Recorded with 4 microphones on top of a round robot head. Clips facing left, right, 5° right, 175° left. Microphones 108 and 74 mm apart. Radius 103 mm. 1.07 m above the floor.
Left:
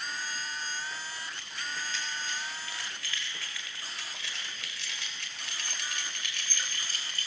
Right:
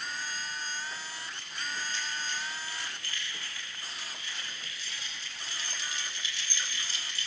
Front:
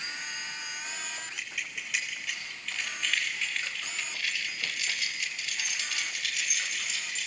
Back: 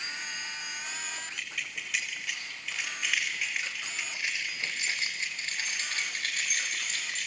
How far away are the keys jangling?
About 4.5 m.